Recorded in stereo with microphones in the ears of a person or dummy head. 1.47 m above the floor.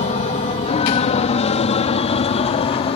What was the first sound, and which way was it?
An aircraft, 35° left (ahead or behind).